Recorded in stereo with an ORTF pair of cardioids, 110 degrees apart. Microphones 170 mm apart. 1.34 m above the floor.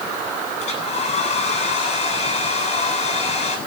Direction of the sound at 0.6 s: 40° left.